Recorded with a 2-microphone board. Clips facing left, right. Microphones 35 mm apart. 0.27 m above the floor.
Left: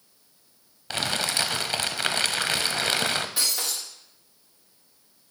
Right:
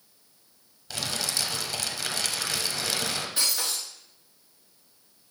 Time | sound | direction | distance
0.9 | crumpling | 45° left (ahead or behind) | 0.6 m
3.4 | breaking glass | 15° left (ahead or behind) | 4 m